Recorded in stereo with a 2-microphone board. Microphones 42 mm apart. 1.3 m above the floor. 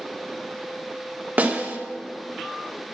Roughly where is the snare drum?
Right.